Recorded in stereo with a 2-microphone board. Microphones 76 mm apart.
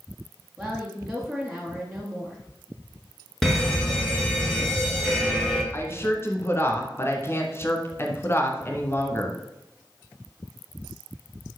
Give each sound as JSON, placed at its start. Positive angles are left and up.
{"t": 0.6, "sound": "a woman speaking", "side_deg": 0, "distance_m": 2.5}
{"t": 3.4, "sound": "a fire alarm", "side_deg": 5, "distance_m": 3.0}
{"t": 5.7, "sound": "a woman speaking", "side_deg": 30, "distance_m": 1.7}